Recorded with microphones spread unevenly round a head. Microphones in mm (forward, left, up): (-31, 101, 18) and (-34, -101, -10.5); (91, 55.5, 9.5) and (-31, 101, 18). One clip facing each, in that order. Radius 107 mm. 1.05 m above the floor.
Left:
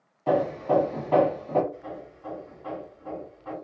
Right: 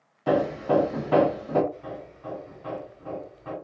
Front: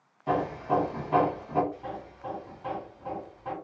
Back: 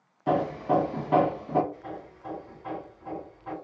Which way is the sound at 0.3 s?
165° right.